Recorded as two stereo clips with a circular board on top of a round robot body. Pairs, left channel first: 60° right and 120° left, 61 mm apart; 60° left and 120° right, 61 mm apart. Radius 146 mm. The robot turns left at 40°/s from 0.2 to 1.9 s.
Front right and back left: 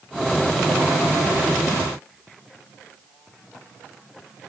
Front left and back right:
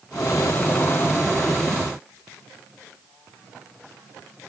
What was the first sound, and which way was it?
Only background noise.